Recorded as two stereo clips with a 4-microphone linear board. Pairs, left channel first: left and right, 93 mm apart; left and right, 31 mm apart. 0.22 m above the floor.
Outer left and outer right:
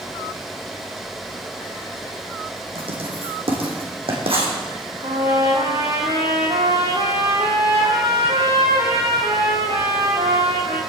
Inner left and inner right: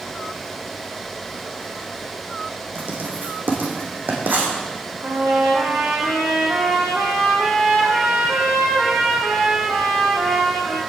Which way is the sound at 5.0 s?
85° right.